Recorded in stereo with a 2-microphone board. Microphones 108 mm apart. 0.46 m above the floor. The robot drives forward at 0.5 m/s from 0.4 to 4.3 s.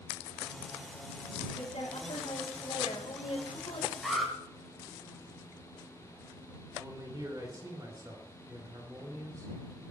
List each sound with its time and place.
1.6 s a woman speaking: 75° left (ahead or behind), 3.5 m; by 3.9 s 60° left (ahead or behind), 4 m
4.0 s an alarm: centre (ahead or behind), 9 m
6.7 s a man speaking: 35° right (ahead or behind), 3 m